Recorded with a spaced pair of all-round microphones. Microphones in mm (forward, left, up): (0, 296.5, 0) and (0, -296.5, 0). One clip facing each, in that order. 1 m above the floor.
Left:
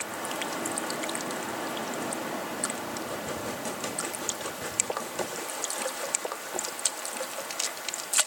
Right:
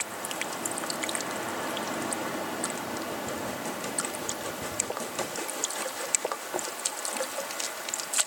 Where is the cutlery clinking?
I don't hear cutlery clinking.